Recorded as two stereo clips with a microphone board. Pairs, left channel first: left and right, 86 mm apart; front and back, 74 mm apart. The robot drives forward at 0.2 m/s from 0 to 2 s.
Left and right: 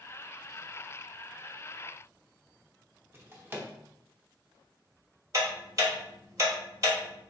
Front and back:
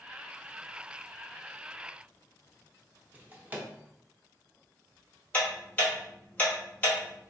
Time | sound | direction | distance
3.1 | a drawer | 130° right | 0.6 m
5.3 | ticking | 60° right | 1.1 m